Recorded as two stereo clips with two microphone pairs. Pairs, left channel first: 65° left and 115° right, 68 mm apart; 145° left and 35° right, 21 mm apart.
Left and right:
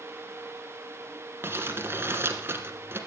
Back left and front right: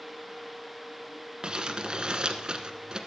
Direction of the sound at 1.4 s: 65° right.